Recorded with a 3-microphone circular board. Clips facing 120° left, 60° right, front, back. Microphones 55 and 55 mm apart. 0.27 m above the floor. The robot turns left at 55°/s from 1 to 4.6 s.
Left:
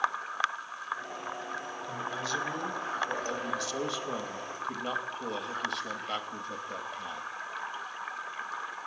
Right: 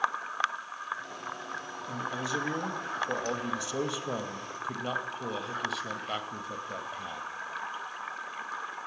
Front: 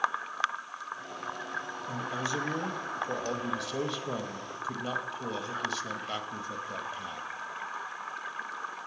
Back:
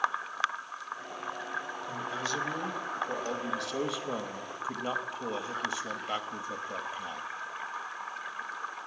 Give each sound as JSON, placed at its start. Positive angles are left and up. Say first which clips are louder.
{"t": 1.9, "sound": "a man speaking", "louder": "right 1 dB, front 2 dB", "azimuth_deg": 10, "distance_m": 0.9}